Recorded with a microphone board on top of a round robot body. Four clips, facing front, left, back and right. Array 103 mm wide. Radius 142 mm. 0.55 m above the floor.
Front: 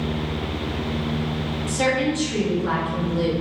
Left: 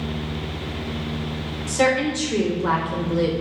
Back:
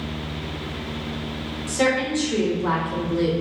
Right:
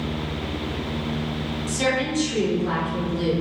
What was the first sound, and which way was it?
A woman speaking, 115° left.